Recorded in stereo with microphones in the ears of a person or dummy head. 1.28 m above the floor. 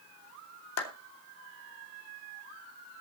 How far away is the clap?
About 2.5 m.